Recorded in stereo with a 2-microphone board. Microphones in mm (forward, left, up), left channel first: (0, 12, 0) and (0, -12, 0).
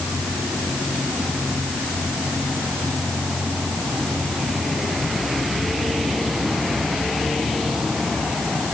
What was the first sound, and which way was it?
Only background noise.